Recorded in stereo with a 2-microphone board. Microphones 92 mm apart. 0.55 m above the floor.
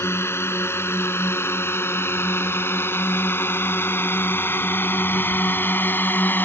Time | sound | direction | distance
0.0 | a drone | 25° left (ahead or behind) | ?